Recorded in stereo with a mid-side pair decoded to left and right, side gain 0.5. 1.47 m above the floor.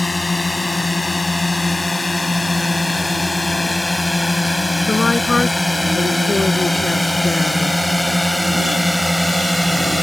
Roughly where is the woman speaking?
Ahead left.